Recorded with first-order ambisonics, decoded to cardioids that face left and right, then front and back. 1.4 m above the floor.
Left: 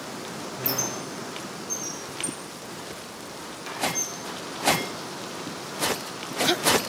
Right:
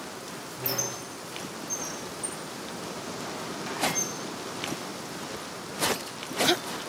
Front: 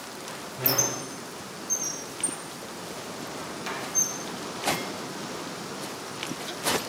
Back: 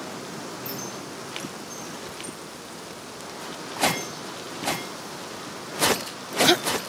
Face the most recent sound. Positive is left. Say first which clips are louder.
# left 2 dB, front 7 dB
turn(degrees=15)